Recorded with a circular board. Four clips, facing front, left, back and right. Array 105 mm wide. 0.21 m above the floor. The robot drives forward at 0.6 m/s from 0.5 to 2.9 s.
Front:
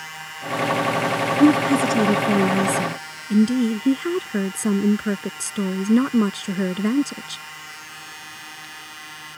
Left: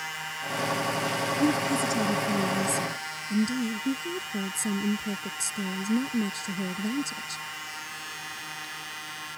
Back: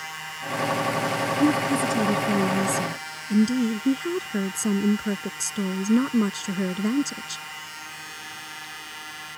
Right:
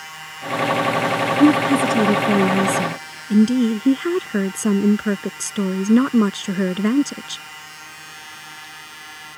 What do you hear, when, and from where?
1.4 s a woman speaking: 50° right; by 7.4 s 70° right